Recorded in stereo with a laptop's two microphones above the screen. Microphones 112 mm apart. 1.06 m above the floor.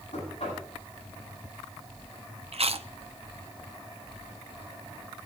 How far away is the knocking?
About 9 m.